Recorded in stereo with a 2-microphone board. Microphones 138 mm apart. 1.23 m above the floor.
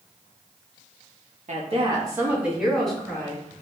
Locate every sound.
1.5 s a woman speaking: 60° right (ahead or behind), 1.1 m; by 3.4 s 15° left (ahead or behind), 2.5 m